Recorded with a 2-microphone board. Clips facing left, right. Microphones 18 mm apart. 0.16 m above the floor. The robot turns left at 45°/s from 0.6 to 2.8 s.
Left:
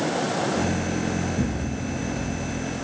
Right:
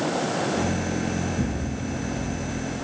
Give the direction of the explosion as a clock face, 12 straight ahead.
10 o'clock.